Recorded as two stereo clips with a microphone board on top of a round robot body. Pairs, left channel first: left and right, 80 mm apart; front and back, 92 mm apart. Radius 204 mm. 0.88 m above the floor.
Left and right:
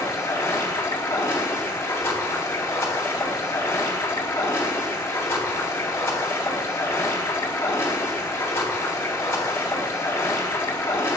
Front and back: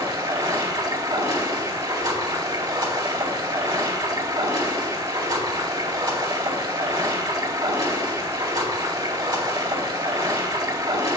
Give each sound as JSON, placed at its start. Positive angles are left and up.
{"t": 0.0, "sound": "running water", "azimuth_deg": 145, "distance_m": 3.5}